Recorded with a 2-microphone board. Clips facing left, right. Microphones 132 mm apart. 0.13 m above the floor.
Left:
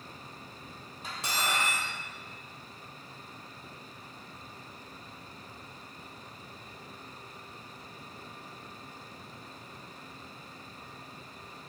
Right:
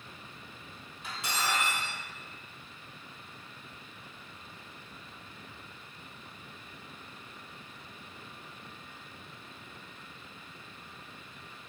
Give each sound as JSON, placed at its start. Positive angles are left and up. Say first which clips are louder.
{"t": 1.0, "sound": "cutlery clinking", "louder": "even", "side_deg": 40, "distance_m": 2.0}